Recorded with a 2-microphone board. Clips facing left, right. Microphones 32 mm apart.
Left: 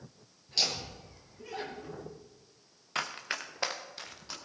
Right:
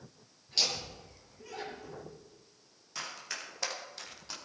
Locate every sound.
0.5 s laughter: 5° right (ahead or behind), 3 m; by 2.1 s 20° left (ahead or behind), 4 m
3.0 s running footsteps: 50° left (ahead or behind), 1.7 m; by 4.3 s centre (ahead or behind), 2.5 m